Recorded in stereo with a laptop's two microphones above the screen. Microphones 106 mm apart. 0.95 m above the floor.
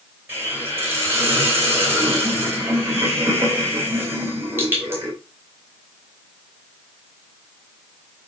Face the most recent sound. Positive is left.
turn(degrees=-20)  # may be behind; listen again after turning